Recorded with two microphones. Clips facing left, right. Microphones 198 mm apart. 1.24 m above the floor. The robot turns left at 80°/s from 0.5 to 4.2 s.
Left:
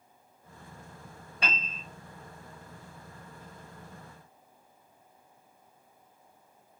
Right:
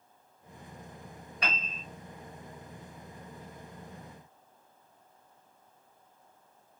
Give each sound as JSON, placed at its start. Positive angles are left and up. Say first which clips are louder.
{"t": 1.4, "sound": "a piano", "louder": "left 1 dB", "azimuth_deg": 30, "distance_m": 1.9}